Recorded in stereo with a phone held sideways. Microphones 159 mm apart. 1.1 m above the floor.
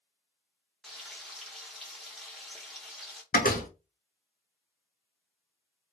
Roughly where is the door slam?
Left.